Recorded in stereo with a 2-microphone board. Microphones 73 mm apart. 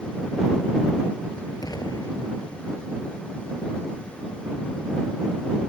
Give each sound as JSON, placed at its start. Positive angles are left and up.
{"t": 1.6, "sound": "an explosion", "side_deg": 60}